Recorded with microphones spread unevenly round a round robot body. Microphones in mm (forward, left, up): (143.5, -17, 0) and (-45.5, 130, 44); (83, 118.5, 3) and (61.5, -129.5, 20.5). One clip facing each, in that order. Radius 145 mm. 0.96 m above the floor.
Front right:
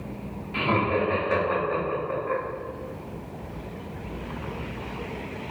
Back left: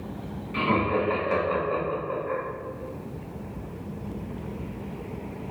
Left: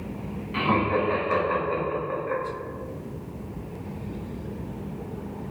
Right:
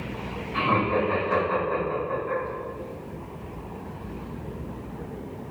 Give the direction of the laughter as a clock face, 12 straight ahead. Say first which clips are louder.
Even, left 1 dB; 11 o'clock.